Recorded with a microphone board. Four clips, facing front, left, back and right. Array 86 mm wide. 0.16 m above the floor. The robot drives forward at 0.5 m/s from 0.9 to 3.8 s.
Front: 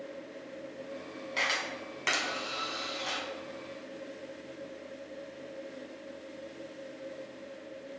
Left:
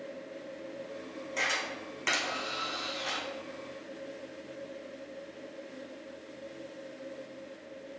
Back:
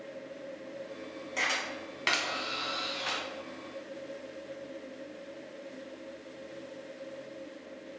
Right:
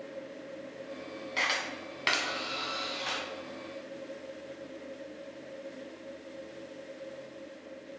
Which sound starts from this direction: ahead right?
A camera shutter, at 1.4 s.